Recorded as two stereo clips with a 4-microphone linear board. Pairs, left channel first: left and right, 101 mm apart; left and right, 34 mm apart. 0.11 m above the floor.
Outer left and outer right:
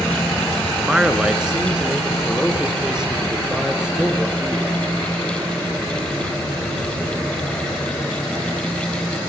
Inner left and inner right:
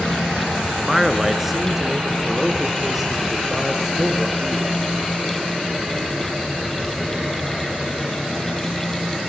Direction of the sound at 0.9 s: 5° right (ahead or behind).